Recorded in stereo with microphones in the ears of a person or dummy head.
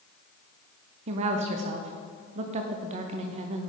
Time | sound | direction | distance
1.1 | a woman speaking | 30° right (ahead or behind) | 0.5 m